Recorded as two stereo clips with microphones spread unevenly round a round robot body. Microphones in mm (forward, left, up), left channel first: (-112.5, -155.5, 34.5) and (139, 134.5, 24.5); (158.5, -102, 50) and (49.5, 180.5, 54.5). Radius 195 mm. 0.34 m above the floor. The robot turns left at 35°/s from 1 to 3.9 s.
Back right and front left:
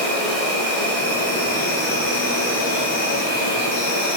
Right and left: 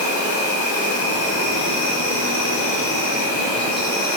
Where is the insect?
40° right, 0.9 m; by 4.2 s 145° right, 0.9 m.